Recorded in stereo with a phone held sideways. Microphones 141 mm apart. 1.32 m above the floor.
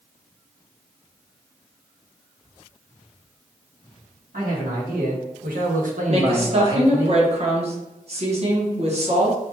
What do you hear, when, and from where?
4.3 s a man speaking: 75° right (ahead or behind), 1.7 m; by 7.1 s 15° right (ahead or behind), 0.9 m
6.1 s a woman speaking: 45° right (ahead or behind), 1.1 m